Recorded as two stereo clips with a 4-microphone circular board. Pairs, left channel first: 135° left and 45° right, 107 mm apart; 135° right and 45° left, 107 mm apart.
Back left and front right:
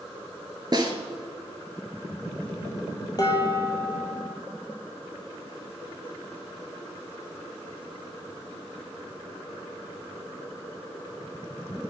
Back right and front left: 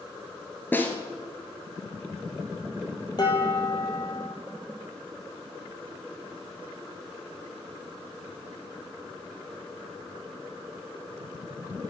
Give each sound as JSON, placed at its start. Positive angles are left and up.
{"t": 0.7, "sound": "a snare drum", "azimuth_deg": -70, "distance_m": 1.2}
{"t": 3.2, "sound": "dishes clattering", "azimuth_deg": 180, "distance_m": 1.9}